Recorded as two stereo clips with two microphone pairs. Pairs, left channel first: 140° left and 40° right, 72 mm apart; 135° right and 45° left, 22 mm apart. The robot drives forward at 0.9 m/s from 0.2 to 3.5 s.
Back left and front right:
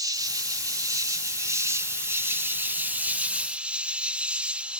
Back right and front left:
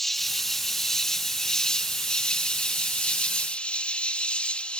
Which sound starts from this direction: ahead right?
An insect, at 0.0 s.